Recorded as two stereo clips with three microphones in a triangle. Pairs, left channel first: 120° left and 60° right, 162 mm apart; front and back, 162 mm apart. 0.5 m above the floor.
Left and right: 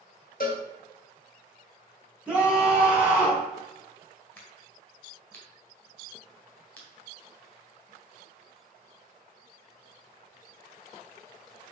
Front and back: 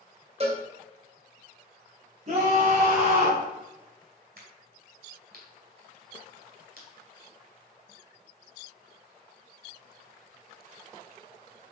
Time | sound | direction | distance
0.4 | a cowbell | 135° left | 1.9 m
2.3 | a scream | 140° right | 2.5 m
4.4 | a crack | 160° right | 3 m